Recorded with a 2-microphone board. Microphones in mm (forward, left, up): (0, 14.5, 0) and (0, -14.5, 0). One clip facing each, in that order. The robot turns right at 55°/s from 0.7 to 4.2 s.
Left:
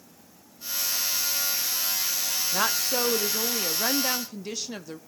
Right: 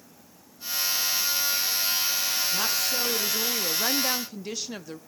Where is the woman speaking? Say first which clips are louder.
Left 1 dB; 95° left, 0.7 m; by 5.0 s 175° right, 0.7 m.